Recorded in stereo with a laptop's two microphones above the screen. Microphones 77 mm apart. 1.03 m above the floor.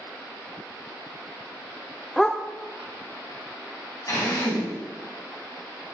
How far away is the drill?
About 4.5 m.